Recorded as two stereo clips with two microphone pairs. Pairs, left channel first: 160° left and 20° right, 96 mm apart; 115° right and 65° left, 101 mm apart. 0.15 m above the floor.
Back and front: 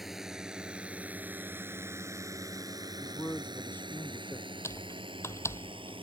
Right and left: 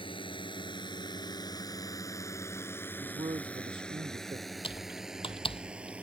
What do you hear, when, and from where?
0.0 s a drone: 110° right; by 6.0 s 15° right
3.0 s a man speaking: 90° left
4.6 s typing on a keyboard: 140° right